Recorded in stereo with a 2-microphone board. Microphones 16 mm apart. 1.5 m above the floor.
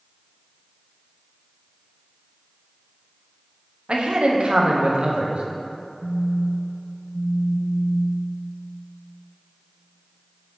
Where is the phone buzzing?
55° right (ahead or behind), 0.6 m.